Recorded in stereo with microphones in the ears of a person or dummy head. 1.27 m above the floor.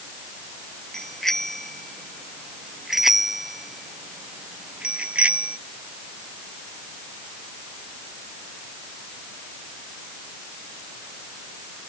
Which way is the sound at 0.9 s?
Centre (ahead or behind).